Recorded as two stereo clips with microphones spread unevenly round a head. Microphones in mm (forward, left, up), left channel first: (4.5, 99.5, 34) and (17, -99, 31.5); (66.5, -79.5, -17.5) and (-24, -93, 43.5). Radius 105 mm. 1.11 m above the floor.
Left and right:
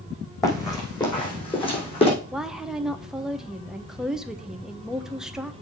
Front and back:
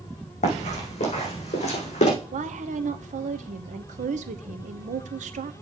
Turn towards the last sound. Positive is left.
turn(degrees=-175)